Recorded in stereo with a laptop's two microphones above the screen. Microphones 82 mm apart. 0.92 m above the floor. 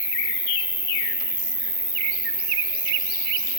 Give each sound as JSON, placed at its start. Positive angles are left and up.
{"t": 0.0, "sound": "an insect", "side_deg": -80, "distance_m": 3.5}